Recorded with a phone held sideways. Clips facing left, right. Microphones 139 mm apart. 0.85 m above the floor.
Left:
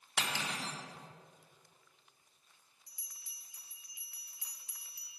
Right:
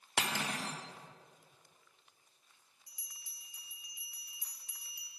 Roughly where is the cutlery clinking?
Right.